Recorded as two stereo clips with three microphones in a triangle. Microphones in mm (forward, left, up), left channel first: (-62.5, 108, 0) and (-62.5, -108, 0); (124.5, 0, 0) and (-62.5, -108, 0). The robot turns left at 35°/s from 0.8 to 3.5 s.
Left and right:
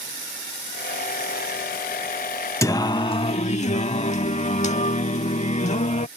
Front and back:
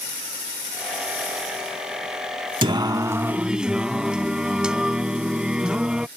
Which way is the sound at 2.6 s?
160° left.